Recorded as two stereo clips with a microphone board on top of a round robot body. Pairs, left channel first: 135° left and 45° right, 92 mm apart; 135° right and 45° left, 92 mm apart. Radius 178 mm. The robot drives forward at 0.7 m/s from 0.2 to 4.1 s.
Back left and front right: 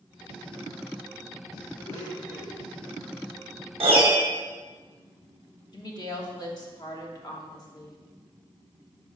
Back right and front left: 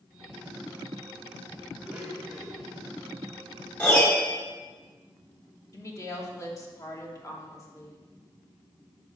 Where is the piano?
65° right, 1.4 m; by 4.3 s 75° right, 1.3 m.